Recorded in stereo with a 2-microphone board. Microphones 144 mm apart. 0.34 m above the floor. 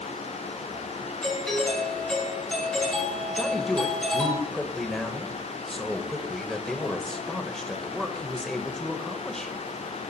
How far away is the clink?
No clink in this recording.